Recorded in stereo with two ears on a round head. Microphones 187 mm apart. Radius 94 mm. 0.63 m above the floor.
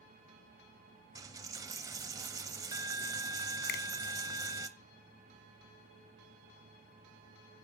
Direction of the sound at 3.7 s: 45° left (ahead or behind).